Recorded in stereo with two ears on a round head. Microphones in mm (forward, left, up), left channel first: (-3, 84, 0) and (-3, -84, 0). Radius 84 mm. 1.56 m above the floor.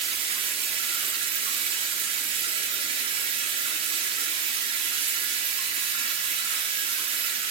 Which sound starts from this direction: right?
Running water, at 0.0 s.